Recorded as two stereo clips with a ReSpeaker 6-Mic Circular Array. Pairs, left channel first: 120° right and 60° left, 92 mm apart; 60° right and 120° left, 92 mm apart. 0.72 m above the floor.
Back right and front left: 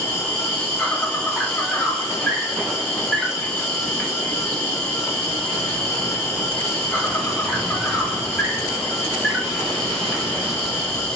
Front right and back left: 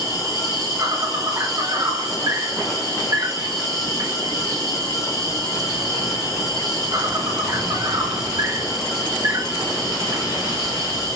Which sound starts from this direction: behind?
An insect, at 0.0 s.